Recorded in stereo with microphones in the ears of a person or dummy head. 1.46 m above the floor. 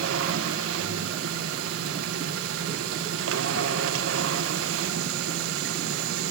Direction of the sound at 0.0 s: 70° right (ahead or behind).